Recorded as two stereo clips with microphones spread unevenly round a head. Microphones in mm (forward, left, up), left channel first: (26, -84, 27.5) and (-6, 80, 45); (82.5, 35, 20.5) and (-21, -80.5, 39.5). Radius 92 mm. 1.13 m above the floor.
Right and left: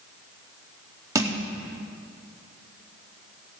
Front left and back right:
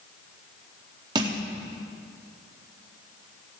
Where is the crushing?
170° left, 0.8 m.